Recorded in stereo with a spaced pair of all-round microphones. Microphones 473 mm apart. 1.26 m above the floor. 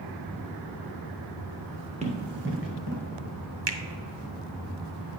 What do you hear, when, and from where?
2.0 s running footsteps: 15° right (ahead or behind), 1.3 m; by 3.0 s 40° right (ahead or behind), 1.5 m
3.7 s a finger snap: 60° right (ahead or behind), 0.7 m